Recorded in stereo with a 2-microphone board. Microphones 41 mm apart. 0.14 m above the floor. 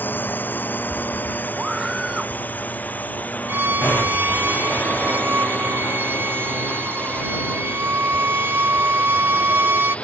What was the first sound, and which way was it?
A drone, 50° left (ahead or behind).